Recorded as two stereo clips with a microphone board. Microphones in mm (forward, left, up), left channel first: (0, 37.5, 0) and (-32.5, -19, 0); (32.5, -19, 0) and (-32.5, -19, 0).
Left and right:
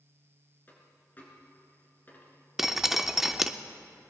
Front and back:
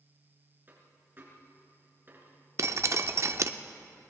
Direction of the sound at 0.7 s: 120° left.